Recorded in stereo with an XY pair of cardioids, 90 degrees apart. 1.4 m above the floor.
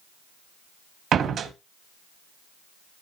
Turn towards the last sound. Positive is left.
turn(degrees=-70)